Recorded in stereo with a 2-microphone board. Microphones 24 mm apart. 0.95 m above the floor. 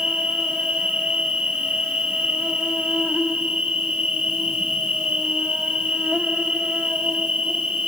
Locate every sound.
0.0 s an insect: 60° right (ahead or behind), 3.5 m